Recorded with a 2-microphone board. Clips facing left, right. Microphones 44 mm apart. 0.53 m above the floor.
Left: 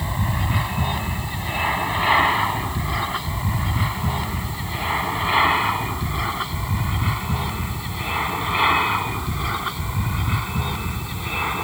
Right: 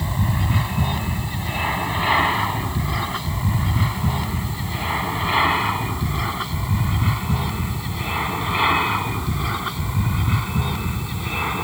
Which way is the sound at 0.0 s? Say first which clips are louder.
Right 1 dB; 10° left (ahead or behind).